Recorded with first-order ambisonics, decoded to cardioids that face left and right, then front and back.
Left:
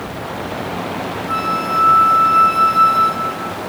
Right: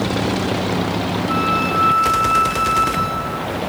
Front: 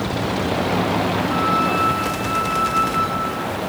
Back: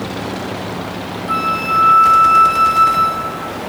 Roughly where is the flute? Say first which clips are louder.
Even, back 5 dB; behind.